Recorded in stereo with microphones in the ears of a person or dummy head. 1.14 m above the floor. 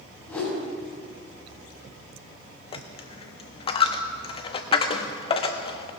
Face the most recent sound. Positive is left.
turn(degrees=30)  # may be behind; listen again after turning